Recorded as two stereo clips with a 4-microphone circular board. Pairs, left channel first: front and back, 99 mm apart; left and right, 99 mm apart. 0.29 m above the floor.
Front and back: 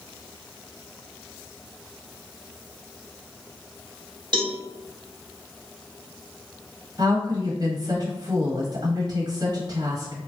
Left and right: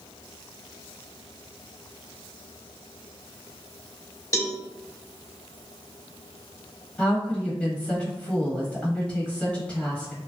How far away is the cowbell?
About 0.6 m.